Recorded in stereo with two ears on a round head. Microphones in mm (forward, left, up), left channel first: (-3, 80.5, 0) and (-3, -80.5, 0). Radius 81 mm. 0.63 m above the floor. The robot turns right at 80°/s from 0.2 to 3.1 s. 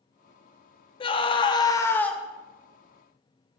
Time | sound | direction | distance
1.0 | a scream | 30° left (ahead or behind) | 0.6 m